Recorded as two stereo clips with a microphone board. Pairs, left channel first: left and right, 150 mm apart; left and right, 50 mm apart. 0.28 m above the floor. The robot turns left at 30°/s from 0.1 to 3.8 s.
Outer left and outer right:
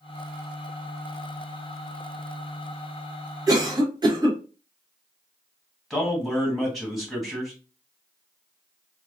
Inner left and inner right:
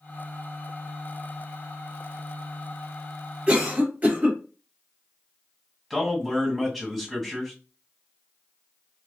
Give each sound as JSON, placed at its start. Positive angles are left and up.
{"t": 3.5, "sound": "a cough", "side_deg": -25, "distance_m": 1.1}
{"t": 5.9, "sound": "a man speaking", "side_deg": 0, "distance_m": 2.0}